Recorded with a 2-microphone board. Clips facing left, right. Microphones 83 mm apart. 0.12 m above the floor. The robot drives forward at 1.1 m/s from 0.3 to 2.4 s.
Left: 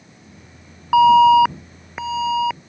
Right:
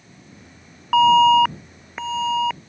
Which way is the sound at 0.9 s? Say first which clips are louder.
Left 3 dB; 10° left (ahead or behind).